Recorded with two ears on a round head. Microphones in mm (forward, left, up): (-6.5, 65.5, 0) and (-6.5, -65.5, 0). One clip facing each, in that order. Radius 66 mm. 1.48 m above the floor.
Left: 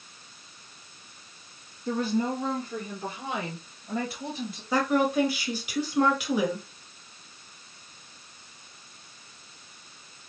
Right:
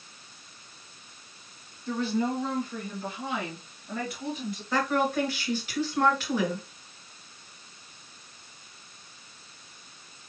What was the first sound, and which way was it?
A woman speaking, 35° left (ahead or behind).